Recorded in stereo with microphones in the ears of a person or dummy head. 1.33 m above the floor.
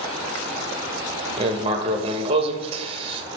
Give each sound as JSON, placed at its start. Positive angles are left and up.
{"t": 1.4, "sound": "writing", "side_deg": -25, "distance_m": 0.8}